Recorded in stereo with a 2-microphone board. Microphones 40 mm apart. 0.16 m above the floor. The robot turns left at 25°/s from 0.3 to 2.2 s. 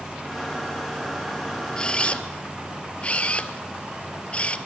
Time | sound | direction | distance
1.8 | a camera shutter | 20° left (ahead or behind) | 0.9 m